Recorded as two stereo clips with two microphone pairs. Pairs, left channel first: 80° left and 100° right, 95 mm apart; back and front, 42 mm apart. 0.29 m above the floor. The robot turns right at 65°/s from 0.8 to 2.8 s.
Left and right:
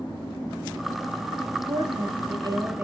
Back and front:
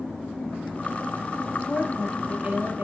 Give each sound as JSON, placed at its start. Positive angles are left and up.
{"t": 1.7, "sound": "a woman speaking", "azimuth_deg": -105, "distance_m": 6.5}